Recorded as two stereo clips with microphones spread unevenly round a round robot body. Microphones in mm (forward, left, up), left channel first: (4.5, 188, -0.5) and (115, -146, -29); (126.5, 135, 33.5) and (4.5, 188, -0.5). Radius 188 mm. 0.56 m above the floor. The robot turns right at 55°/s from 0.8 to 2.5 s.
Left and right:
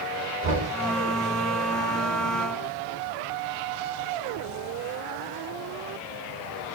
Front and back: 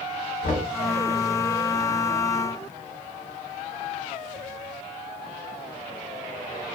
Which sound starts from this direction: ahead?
Knocking, at 0.4 s.